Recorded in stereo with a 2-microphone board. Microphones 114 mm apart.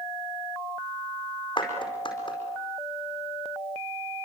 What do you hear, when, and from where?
1.6 s a clap: 40° left (ahead or behind), 4.5 m